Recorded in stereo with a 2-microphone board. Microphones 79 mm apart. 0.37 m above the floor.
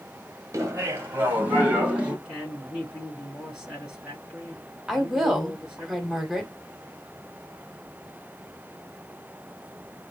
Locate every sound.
0.5 s laughter: 40° right (ahead or behind), 1.5 m; by 2.1 s 15° right (ahead or behind), 2.5 m
2.2 s a woman speaking: 15° right (ahead or behind), 4 m
4.9 s a woman speaking: 5° right (ahead or behind), 1.5 m